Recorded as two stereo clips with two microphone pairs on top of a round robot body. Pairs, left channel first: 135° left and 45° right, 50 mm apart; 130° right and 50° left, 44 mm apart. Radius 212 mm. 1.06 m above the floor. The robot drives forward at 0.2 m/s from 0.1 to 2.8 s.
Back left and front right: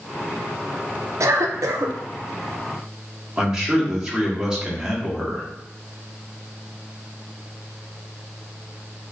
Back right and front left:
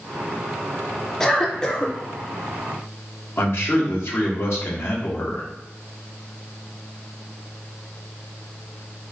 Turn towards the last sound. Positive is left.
turn(degrees=-120)